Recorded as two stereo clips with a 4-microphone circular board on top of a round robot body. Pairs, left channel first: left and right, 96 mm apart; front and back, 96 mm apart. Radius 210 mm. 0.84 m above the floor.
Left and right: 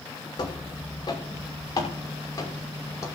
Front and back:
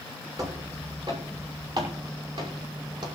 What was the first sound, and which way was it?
Footsteps, 130° left.